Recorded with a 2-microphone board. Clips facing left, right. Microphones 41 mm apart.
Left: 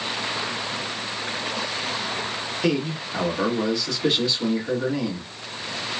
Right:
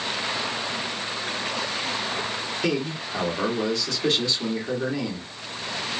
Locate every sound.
2.6 s a man speaking: 5° left (ahead or behind), 1.5 m